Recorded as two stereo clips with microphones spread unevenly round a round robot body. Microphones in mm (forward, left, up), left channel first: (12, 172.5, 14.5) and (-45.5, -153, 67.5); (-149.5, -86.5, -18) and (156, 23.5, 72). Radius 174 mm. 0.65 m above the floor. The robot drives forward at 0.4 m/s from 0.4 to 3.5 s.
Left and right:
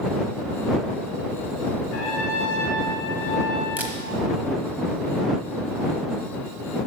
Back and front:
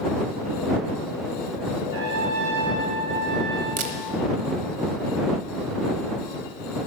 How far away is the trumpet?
About 4 m.